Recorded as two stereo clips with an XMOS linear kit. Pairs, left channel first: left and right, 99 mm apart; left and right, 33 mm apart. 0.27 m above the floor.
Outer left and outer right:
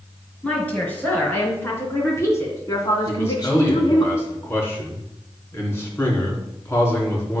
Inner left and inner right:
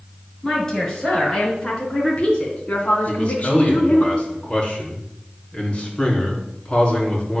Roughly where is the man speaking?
Left.